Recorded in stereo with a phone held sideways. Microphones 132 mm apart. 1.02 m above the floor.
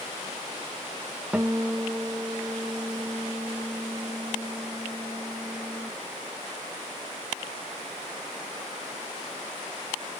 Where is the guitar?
10° right (ahead or behind), 0.6 m.